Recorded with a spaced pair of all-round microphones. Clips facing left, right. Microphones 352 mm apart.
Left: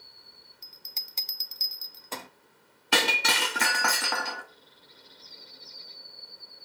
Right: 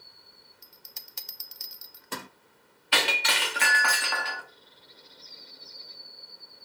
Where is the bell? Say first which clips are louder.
Even; 20° right (ahead or behind), 0.6 m.